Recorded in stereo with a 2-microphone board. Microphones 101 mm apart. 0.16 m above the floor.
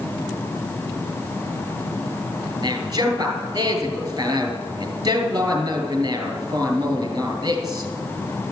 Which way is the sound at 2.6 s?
40° right (ahead or behind).